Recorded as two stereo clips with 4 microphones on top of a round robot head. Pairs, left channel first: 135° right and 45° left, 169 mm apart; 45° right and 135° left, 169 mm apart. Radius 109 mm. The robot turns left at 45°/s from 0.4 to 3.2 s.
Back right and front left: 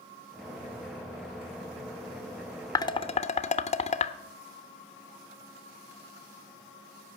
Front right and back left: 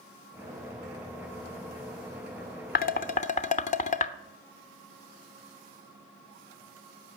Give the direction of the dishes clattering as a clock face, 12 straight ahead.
2 o'clock.